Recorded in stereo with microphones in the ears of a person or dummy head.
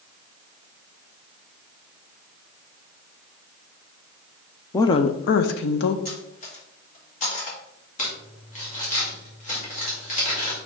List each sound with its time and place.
4.7 s a woman speaking: 15° left (ahead or behind), 0.5 m; by 6.0 s 75° left (ahead or behind), 1.0 m
6.0 s cutlery clinking: 45° left (ahead or behind), 1.3 m
8.0 s crumpling: 45° left (ahead or behind), 2 m